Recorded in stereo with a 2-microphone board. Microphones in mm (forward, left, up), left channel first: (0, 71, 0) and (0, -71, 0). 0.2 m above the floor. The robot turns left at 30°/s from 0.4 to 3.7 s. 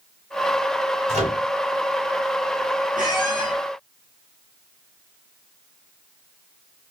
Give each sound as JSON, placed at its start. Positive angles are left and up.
{"t": 1.1, "sound": "a microwave", "side_deg": -55, "distance_m": 1.9}
{"t": 3.0, "sound": "a squeak", "side_deg": -75, "distance_m": 2.5}